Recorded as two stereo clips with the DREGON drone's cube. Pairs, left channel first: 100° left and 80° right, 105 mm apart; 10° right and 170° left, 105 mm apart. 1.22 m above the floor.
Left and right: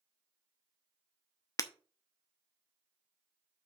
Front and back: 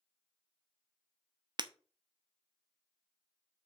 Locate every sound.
1.6 s breaking glass: 145° left, 0.7 m